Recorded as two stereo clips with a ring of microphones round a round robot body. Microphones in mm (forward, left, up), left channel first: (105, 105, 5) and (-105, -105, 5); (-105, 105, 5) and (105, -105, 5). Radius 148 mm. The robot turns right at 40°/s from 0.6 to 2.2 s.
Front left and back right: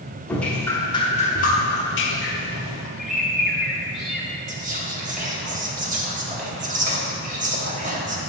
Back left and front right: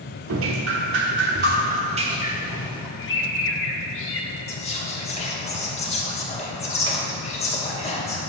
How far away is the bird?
About 0.9 m.